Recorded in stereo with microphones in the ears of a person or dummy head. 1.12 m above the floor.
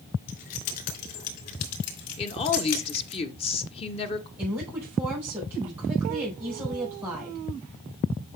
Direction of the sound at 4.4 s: 10° right (ahead or behind).